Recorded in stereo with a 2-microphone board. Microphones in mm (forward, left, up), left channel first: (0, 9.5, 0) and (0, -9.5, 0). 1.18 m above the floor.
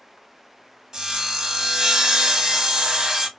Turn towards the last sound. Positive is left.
turn(degrees=-40)  # may be behind; listen again after turning